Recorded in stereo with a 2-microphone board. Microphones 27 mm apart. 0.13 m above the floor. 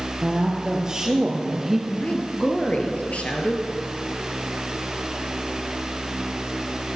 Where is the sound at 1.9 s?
55° left (ahead or behind), 2.5 m.